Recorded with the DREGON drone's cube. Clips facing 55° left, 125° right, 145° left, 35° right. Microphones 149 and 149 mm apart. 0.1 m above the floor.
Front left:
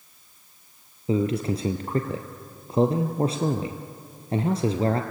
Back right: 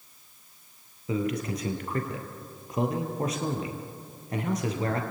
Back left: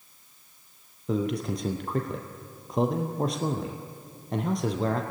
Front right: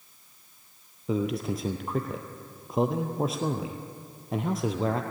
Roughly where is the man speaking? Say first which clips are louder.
Front left 5 dB, even; ahead left.